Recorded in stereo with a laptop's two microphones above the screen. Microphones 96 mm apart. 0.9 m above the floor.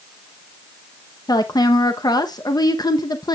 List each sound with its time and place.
1.3 s a woman speaking: 45° left (ahead or behind), 0.8 m